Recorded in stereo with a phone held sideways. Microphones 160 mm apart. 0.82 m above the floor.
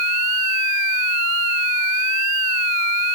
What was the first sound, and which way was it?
Only background noise.